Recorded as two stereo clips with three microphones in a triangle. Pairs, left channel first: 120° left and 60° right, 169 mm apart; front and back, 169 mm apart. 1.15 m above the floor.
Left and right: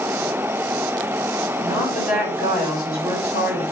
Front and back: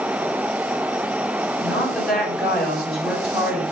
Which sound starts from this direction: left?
A woman speaking, at 1.6 s.